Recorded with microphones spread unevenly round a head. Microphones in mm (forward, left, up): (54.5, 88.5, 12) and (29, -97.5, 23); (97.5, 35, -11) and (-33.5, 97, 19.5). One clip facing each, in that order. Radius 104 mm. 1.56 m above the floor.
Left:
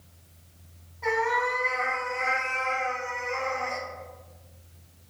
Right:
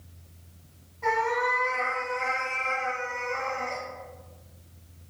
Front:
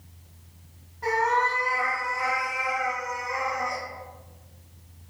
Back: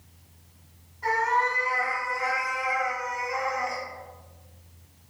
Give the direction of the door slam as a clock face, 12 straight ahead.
I don't hear a door slam.